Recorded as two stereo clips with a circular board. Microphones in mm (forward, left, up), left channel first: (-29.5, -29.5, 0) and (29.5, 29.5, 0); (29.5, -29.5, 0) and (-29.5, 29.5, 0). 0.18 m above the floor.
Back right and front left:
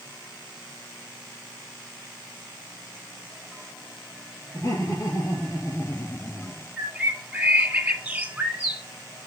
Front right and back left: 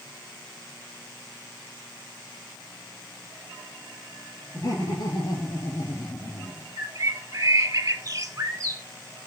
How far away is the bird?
About 1.3 m.